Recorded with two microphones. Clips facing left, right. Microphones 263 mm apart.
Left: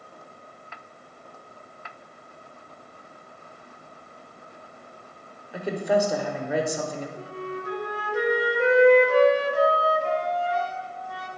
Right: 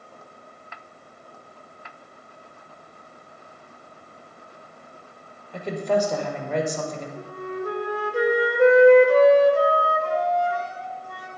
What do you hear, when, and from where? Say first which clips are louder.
5.5 s a woman speaking: even; 10° left (ahead or behind), 0.8 m
7.2 s a flute: right 3 dB; 50° right (ahead or behind), 1.0 m